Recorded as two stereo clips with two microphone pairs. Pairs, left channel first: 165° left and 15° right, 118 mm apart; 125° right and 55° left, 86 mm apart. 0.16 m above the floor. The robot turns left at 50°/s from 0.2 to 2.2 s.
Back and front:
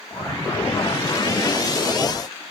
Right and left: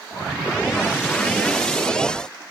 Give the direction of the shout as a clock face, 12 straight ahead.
No shout in this recording.